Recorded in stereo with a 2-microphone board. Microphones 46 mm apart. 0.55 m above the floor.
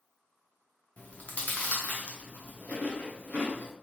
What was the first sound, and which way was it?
Chewing, 35° left (ahead or behind).